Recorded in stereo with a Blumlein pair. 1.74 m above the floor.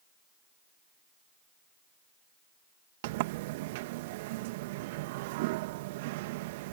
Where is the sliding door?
50° right.